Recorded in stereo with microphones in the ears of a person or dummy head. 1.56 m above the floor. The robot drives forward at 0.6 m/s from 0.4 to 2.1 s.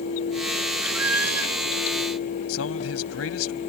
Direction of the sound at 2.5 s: 90° left.